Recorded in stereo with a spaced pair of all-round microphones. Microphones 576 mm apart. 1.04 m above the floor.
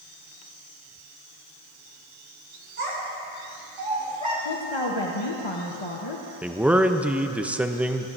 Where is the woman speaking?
50° left (ahead or behind), 1.0 m.